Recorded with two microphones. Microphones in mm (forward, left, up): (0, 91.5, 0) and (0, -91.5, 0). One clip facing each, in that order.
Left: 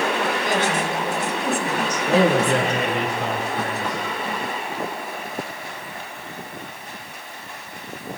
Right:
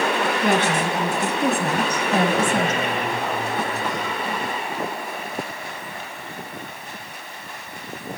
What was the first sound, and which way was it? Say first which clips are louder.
A woman speaking: right 2 dB; 60° right (ahead or behind).